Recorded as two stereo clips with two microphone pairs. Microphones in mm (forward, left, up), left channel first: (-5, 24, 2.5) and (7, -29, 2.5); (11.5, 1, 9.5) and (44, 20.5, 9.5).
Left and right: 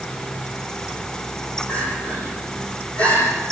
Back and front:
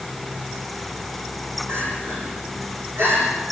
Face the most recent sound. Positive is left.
turn(degrees=40)